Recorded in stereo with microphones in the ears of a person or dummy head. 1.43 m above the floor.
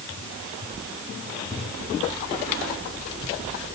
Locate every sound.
Only background noise.